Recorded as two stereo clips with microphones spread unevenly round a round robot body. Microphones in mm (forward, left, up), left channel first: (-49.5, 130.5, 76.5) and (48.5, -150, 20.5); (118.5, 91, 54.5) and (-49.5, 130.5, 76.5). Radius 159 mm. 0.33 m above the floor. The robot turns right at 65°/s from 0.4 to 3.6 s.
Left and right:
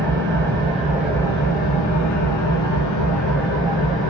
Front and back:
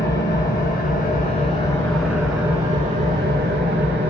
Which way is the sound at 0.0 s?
30° right.